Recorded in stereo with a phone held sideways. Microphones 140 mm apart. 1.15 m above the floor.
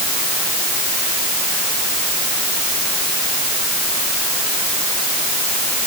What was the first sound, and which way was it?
Only background noise.